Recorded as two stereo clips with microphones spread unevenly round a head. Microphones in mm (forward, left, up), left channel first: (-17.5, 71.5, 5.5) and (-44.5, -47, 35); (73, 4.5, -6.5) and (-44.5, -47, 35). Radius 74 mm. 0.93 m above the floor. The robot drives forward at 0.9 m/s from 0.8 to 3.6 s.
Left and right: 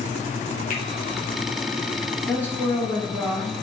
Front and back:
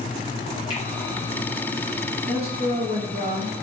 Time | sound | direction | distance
0.7 | a finger snap | 75° left | 3.5 m
2.3 | a woman speaking | 150° left | 3 m